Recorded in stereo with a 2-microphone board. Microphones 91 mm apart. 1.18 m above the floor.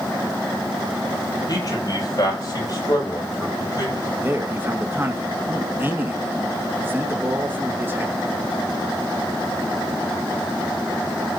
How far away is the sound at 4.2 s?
About 1.4 m.